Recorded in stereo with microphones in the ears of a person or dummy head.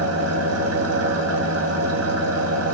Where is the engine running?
80° right, 1.7 m.